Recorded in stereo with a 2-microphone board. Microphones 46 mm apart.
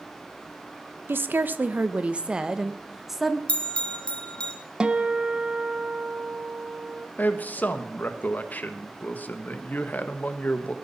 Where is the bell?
25° left (ahead or behind), 1.7 m.